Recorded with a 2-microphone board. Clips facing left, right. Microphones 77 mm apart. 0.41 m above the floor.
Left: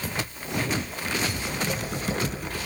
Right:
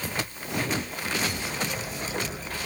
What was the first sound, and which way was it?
Typing on a keyboard, 60° left (ahead or behind).